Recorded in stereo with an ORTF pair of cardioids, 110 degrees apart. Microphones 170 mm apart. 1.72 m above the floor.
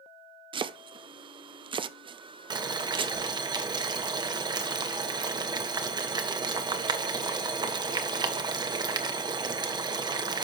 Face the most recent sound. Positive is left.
turn(degrees=-25)